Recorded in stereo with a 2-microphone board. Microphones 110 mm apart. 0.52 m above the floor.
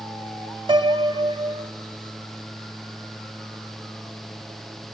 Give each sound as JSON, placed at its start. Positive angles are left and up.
{"t": 0.7, "sound": "a piano", "side_deg": -50, "distance_m": 1.2}